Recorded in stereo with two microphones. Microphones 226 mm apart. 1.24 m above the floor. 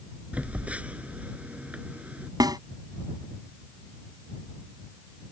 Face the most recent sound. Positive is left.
turn(degrees=-15)  # may be behind; listen again after turning